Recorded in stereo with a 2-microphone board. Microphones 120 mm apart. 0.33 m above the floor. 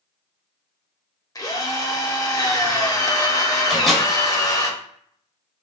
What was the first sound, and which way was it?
A drill, 30° left (ahead or behind).